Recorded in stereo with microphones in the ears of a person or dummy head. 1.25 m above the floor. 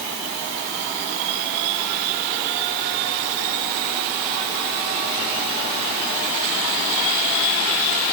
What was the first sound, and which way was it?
Only background noise.